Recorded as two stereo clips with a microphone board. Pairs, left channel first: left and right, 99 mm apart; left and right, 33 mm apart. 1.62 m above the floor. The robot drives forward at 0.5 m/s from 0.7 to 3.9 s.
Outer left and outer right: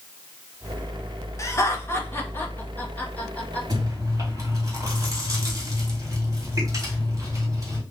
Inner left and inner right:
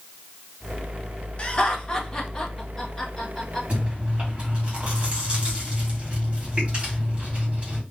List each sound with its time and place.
1.4 s laughter: 30° left (ahead or behind), 0.9 m; by 3.6 s 15° left (ahead or behind), 1.9 m
3.7 s chewing: 35° right (ahead or behind), 2.0 m; by 7.8 s 30° right (ahead or behind), 2 m